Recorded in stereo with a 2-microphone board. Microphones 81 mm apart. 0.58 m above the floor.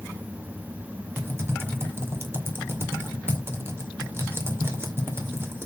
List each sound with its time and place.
1.2 s typing on a keyboard: 30° right (ahead or behind), 2 m